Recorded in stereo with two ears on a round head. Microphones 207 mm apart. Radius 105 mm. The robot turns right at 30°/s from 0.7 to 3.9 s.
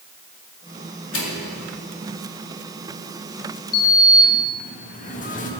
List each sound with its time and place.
1.1 s a microwave: 60° left (ahead or behind), 2.5 m; by 1.5 s 50° left (ahead or behind), 2.5 m
3.7 s a sliding door: 40° left (ahead or behind), 1.3 m; by 5.5 s 35° left (ahead or behind), 1.3 m